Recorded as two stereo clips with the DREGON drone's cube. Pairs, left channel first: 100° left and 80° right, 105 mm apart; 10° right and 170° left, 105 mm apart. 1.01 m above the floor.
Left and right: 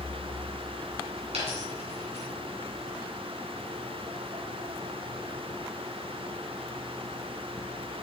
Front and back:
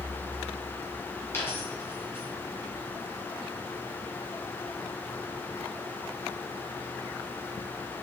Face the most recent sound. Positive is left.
turn(degrees=-80)